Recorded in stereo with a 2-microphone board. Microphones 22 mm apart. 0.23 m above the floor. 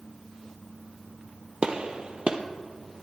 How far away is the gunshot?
About 1.2 m.